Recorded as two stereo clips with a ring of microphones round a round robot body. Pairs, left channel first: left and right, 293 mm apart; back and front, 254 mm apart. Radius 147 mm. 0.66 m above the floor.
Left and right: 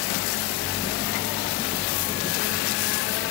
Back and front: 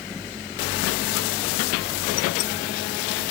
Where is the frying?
No frying in this recording.